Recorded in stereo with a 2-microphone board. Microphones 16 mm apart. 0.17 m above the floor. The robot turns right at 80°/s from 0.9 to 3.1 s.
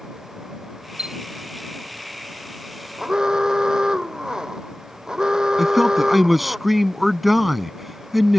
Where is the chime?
65° right (ahead or behind); by 1.2 s 50° right (ahead or behind).